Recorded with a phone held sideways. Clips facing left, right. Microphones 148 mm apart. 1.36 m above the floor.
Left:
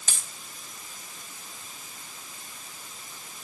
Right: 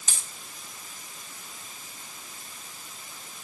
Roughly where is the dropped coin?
Left.